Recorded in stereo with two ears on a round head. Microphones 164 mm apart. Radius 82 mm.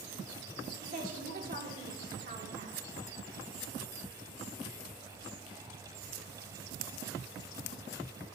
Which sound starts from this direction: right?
A woman speaking, at 0.8 s.